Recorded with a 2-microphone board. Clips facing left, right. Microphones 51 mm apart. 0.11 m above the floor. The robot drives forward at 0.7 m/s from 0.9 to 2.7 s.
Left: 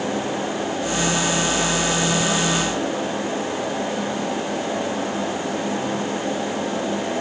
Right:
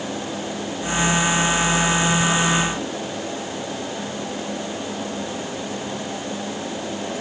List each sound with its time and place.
Only background noise.